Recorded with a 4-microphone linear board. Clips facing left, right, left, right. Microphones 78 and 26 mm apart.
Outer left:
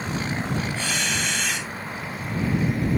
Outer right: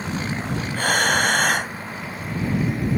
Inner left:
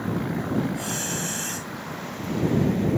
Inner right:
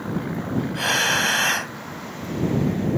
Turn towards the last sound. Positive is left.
turn(degrees=-50)  # may be behind; listen again after turning